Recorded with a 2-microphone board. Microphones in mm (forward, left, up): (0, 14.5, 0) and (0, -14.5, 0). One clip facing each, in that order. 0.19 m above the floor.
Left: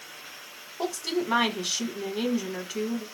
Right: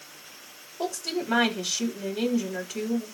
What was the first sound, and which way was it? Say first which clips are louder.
A woman speaking: left 1 dB; 20° left (ahead or behind).